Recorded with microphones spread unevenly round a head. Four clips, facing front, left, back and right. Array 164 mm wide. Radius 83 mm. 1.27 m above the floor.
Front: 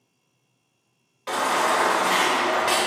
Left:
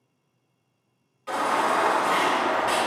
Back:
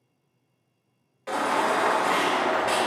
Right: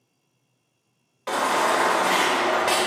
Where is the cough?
No cough in this recording.